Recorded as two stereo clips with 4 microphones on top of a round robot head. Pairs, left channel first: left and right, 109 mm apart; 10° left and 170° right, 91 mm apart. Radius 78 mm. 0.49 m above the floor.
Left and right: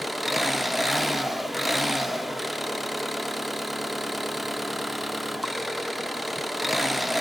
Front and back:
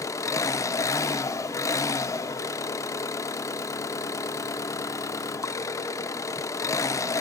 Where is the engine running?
Straight ahead, 0.7 m.